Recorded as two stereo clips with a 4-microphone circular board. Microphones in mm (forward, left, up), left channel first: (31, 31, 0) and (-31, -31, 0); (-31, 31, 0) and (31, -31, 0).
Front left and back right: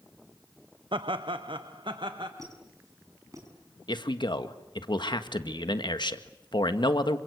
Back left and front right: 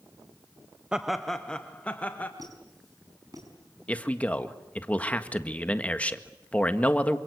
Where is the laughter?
125° right, 0.8 m; by 2.3 s 155° right, 2 m.